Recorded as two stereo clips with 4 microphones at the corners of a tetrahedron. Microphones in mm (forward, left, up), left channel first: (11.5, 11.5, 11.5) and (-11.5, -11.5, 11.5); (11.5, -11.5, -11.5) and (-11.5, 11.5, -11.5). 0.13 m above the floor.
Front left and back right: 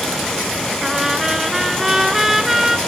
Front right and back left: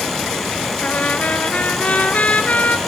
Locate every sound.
0.8 s a trumpet: 55° right, 1.4 m